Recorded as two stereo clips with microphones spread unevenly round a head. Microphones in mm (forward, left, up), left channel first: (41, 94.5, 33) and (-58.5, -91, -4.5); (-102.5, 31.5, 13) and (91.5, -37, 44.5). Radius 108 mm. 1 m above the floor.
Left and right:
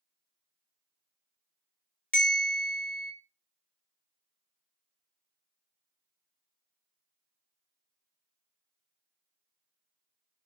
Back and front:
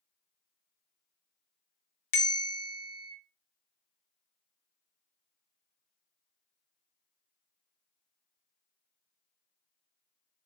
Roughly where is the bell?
Behind left.